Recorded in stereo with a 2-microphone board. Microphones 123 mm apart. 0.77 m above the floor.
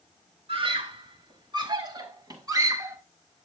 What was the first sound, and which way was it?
A scream, 50° right (ahead or behind).